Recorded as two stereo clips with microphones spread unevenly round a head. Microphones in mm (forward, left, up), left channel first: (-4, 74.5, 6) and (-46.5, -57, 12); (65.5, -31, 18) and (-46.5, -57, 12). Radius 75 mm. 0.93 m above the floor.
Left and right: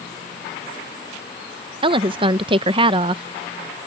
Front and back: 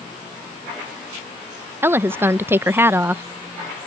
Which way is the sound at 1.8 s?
120° right.